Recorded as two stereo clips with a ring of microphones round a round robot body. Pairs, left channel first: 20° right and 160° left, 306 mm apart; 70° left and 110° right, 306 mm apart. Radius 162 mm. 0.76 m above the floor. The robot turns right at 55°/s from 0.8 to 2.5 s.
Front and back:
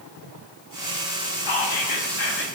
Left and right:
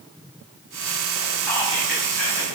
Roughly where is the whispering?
Ahead.